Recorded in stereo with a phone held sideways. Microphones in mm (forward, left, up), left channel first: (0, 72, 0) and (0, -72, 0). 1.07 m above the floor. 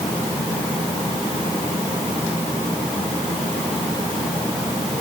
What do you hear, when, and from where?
Only background noise.